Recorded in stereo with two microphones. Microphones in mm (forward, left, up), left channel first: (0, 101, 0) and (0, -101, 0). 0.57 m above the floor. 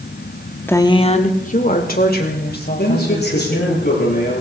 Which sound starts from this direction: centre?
A woman speaking, at 0.7 s.